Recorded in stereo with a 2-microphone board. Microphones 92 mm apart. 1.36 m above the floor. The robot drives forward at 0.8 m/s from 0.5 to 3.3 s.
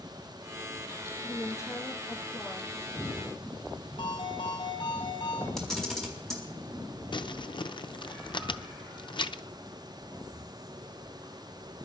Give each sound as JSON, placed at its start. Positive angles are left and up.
{"t": 1.2, "sound": "a woman speaking", "side_deg": 40, "distance_m": 1.6}
{"t": 4.0, "sound": "a ringtone", "side_deg": 85, "distance_m": 6.0}
{"t": 5.6, "sound": "a camera shutter", "side_deg": 5, "distance_m": 4.0}
{"t": 7.1, "sound": "crumpling", "side_deg": 60, "distance_m": 0.6}